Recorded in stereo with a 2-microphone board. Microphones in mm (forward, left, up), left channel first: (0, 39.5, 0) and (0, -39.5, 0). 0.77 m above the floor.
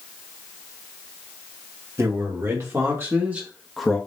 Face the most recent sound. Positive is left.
turn(degrees=10)  # may be behind; listen again after turning